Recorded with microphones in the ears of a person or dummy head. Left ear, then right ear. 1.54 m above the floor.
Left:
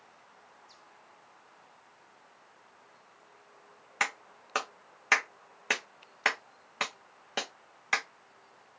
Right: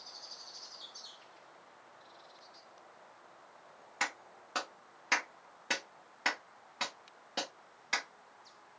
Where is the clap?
30° left (ahead or behind), 0.6 m.